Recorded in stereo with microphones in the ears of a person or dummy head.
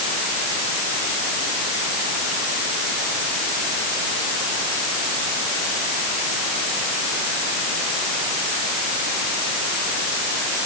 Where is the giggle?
I don't hear a giggle.